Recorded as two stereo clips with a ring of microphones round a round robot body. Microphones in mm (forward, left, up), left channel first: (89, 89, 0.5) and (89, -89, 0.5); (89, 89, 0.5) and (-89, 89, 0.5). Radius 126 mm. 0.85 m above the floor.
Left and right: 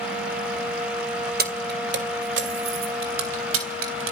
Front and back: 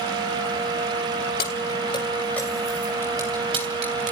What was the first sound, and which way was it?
Keys jangling, 55° right.